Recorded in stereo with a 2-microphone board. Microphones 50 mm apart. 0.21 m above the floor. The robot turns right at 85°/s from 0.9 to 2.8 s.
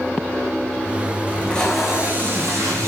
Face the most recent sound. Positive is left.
turn(degrees=-90)